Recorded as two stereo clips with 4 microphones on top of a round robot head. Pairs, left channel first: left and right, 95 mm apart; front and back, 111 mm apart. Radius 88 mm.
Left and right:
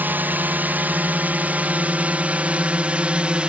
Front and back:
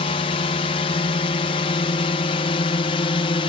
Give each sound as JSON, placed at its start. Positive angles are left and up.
{"t": 0.0, "sound": "a drone", "azimuth_deg": -25}